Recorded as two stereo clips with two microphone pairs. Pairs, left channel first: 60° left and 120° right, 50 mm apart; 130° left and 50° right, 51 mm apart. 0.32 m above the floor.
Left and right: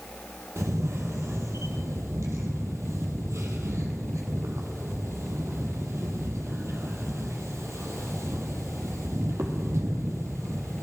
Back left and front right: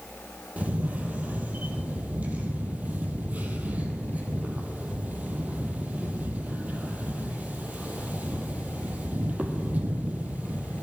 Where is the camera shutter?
105° right, 1.4 m.